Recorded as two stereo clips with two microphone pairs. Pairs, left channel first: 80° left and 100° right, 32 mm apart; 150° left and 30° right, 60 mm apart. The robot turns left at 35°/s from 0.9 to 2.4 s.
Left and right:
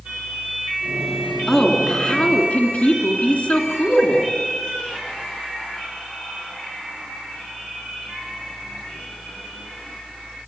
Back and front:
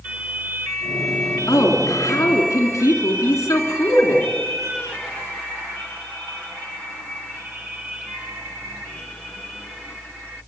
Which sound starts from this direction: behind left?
A woman speaking, at 1.5 s.